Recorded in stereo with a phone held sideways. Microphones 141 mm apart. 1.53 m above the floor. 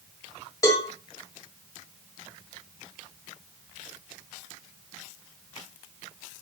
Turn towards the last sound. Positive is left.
turn(degrees=25)  # may be behind; listen again after turning